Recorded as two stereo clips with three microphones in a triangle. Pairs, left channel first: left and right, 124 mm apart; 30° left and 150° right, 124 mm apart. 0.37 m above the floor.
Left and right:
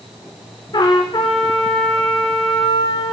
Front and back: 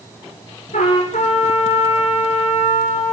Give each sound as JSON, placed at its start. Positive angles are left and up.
{"t": 0.7, "sound": "a trumpet", "azimuth_deg": 40, "distance_m": 7.0}